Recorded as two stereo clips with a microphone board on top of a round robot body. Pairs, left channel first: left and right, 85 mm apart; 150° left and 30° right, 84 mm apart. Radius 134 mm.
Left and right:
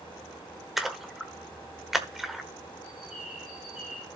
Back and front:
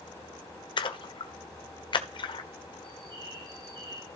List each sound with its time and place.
0.8 s a splash: 175° right, 1.3 m
2.8 s a bird: 5° right, 6 m